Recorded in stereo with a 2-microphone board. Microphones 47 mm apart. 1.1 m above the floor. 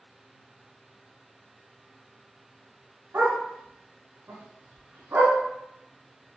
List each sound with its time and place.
3.1 s a dog barking: 70° right (ahead or behind), 2.5 m